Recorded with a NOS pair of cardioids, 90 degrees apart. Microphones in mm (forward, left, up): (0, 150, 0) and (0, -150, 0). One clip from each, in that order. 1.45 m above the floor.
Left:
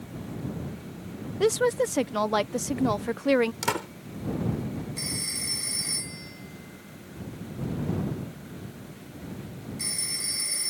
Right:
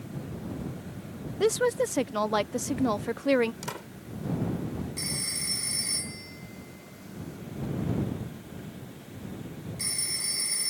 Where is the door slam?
55° left.